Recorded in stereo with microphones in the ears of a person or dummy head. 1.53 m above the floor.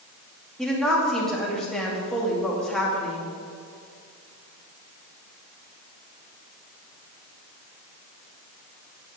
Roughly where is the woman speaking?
Centre.